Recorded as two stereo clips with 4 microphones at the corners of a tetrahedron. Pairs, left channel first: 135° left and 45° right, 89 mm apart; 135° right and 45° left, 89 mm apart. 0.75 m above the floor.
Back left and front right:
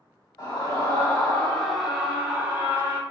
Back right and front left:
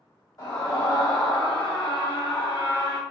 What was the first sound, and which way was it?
A scream, straight behind.